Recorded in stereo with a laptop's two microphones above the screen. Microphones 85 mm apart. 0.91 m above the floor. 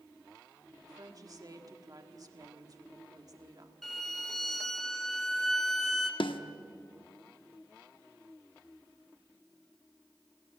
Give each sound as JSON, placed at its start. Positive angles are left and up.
{"t": 0.8, "sound": "a woman speaking", "side_deg": -45, "distance_m": 1.5}
{"t": 3.8, "sound": "a violin", "side_deg": 5, "distance_m": 1.0}
{"t": 6.2, "sound": "a snare drum", "side_deg": 75, "distance_m": 1.0}